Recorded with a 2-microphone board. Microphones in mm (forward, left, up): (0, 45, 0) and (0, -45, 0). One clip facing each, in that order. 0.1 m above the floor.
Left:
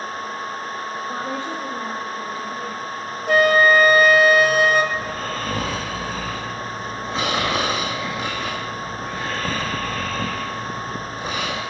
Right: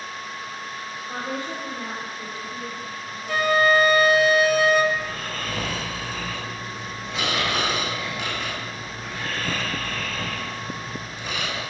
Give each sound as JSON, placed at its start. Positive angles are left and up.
{"t": 1.1, "sound": "a woman speaking", "side_deg": 25, "distance_m": 4.0}
{"t": 3.3, "sound": "a flute", "side_deg": 55, "distance_m": 1.0}
{"t": 4.9, "sound": "snoring", "side_deg": 35, "distance_m": 2.5}